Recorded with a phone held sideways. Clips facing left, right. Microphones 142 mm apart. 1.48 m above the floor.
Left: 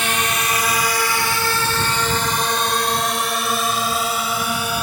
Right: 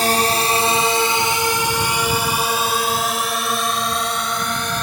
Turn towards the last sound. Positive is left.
turn(degrees=10)  # may be behind; listen again after turning